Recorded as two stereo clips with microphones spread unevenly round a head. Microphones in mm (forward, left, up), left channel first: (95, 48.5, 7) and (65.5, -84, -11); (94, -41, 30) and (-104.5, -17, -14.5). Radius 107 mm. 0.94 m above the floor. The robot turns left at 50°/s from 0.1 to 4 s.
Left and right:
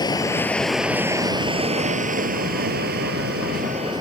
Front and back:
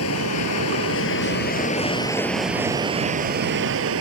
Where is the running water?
20° left; by 4.0 s 175° right.